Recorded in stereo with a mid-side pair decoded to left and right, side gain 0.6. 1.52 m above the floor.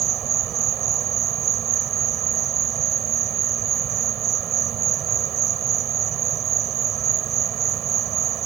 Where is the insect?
50° right.